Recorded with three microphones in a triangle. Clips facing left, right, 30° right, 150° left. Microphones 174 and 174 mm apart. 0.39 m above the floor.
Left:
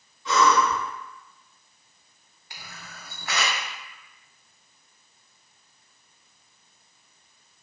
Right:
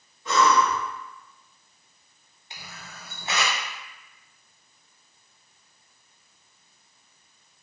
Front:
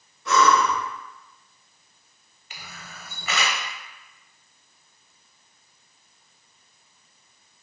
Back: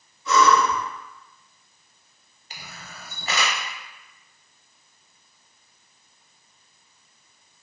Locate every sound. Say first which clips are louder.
0.2 s breathing: even, back 1 dB; 50° right, 1.3 m
2.5 s a camera shutter: right 1 dB, back 1 dB; 155° right, 0.6 m